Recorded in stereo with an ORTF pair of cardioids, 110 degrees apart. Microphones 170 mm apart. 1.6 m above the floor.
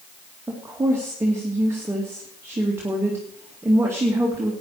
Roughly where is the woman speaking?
Ahead.